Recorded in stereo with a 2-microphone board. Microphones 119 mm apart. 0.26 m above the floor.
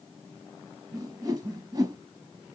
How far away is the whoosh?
About 0.9 m.